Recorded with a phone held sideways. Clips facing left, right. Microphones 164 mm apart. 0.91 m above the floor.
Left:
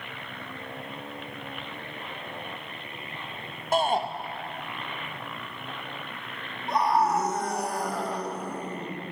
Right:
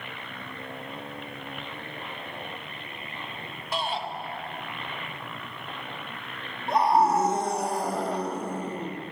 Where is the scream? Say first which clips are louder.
Right 2 dB; 25° right (ahead or behind), 1.8 m.